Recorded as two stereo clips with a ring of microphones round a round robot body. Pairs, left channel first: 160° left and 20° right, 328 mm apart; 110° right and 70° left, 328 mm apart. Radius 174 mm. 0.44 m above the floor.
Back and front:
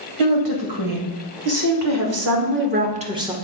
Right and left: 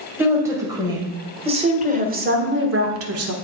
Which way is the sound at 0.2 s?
15° right.